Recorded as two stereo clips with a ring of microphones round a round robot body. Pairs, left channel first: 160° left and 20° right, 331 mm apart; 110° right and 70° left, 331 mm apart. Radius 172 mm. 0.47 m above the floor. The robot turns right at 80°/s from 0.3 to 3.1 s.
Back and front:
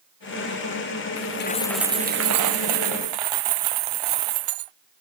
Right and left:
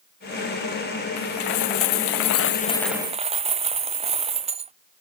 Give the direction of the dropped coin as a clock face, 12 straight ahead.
5 o'clock.